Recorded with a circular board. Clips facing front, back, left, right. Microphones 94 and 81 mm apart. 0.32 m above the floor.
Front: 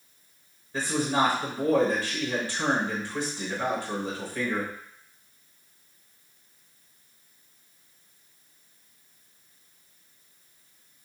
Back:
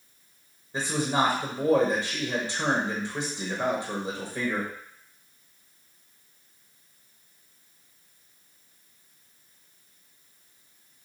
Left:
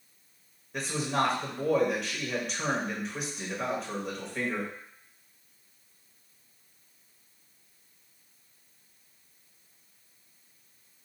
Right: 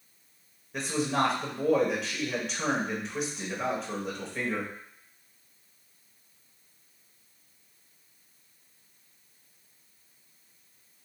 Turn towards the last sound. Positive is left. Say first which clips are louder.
# even, right 1 dB
turn(degrees=180)